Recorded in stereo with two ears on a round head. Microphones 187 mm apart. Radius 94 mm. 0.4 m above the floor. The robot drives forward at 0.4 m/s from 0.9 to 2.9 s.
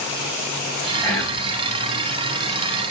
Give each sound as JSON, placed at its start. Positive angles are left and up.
{"t": 1.0, "sound": "whispering", "side_deg": 15, "distance_m": 2.5}